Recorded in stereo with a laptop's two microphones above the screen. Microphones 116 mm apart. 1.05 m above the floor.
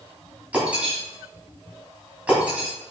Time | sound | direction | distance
0.5 | breaking glass | 10° right (ahead or behind) | 3 m